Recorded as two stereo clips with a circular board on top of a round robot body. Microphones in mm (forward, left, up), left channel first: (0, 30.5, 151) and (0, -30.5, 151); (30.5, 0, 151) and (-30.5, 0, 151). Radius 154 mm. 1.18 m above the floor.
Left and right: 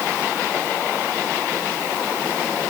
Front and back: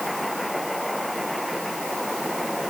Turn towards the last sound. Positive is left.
No sound to turn to.